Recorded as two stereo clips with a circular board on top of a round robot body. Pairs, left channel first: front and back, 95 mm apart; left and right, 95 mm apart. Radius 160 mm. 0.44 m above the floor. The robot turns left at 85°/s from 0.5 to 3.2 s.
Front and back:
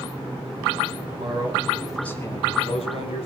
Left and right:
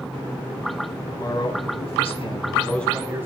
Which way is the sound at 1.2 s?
150° left.